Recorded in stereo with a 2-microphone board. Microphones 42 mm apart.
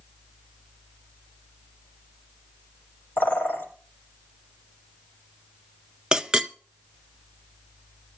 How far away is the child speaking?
I don't hear a child speaking.